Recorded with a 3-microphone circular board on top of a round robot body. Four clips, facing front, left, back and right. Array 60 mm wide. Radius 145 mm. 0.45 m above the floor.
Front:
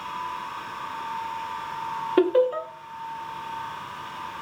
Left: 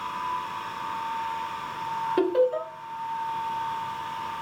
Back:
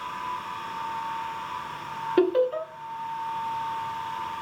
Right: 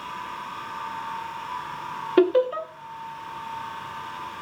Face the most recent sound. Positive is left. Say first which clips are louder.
# right 4 dB, front 2 dB
turn(degrees=-70)